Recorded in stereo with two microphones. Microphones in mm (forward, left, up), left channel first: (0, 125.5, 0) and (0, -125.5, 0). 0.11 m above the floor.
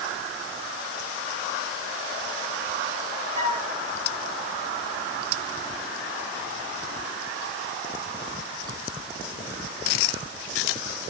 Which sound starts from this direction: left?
A flute, at 3.4 s.